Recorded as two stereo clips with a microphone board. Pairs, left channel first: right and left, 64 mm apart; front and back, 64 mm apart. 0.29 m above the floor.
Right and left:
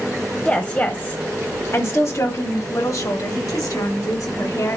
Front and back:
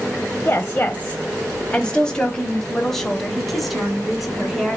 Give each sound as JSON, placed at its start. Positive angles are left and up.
{"t": 0.5, "sound": "a woman speaking", "azimuth_deg": -35, "distance_m": 1.3}